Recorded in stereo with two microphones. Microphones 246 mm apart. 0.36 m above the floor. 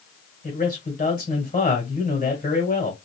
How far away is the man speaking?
About 1.6 m.